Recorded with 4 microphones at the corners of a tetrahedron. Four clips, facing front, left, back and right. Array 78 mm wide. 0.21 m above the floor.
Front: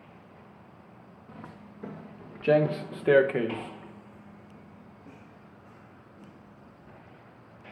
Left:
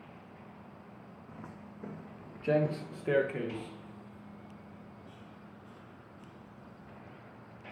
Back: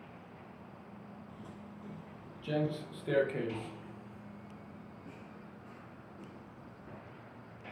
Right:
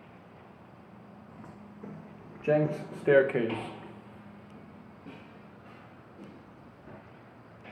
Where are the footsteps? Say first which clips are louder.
Left 1 dB, front 3 dB; 10° left, 3.5 m; by 7.0 s 95° right, 6 m.